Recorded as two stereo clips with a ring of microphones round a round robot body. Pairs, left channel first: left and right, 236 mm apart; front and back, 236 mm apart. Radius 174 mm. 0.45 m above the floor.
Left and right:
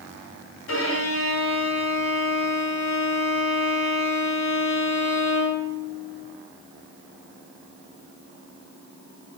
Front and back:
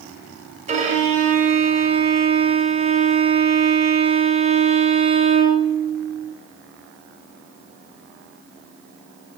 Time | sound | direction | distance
0.7 | a violin | 120° left | 1.9 m